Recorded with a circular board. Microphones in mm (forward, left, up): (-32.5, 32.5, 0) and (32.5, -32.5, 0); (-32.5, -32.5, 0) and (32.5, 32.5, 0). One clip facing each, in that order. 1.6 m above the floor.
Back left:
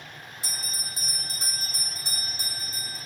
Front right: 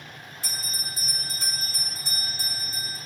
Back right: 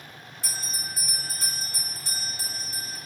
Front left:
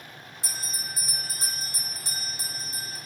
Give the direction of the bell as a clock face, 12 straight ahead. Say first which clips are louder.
Front right 3 dB, back right 1 dB; 9 o'clock.